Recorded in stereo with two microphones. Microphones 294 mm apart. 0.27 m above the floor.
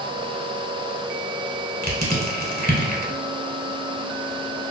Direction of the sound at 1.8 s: 30° right (ahead or behind).